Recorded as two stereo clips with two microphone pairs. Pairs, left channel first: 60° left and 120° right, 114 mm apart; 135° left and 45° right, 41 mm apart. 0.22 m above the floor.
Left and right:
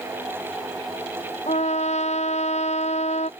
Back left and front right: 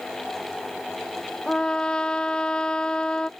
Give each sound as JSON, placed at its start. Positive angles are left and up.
{"t": 1.5, "sound": "a trumpet", "azimuth_deg": 70}